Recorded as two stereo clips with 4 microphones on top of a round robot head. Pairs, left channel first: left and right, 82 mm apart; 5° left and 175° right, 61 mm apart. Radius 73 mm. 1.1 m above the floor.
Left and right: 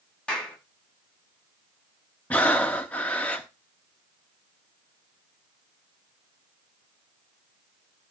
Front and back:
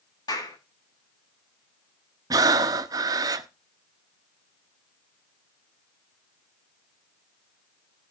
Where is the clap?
10° left, 8.5 m.